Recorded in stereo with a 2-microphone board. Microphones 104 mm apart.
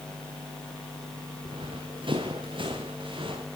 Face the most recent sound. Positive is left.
turn(degrees=-55)  # may be behind; listen again after turning